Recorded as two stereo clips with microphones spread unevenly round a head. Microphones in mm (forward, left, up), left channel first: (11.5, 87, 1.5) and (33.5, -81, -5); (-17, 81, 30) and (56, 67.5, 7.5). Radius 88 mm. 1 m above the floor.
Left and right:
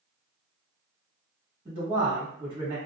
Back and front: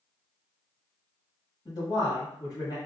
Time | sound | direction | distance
1.6 | a man speaking | 140° right | 1.4 m